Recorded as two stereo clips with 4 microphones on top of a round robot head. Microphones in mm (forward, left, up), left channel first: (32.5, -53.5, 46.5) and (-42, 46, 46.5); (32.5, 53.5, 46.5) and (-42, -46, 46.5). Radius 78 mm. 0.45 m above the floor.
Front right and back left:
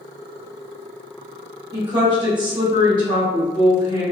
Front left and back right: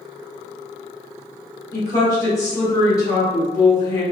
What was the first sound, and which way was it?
A woman speaking, 100° left.